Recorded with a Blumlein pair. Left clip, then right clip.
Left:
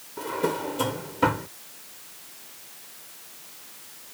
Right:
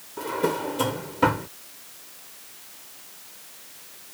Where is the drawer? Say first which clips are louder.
Right 2 dB; 5° right.